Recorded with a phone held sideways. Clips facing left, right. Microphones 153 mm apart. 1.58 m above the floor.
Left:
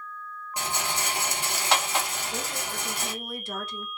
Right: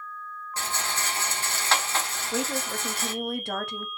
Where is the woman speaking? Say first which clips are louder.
Right 10 dB; 65° right (ahead or behind), 0.6 m.